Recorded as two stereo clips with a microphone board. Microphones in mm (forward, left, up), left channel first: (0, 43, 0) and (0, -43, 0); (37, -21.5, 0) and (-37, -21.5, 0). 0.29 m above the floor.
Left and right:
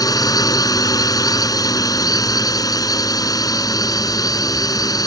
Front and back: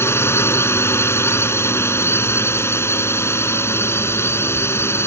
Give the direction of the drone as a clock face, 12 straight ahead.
10 o'clock.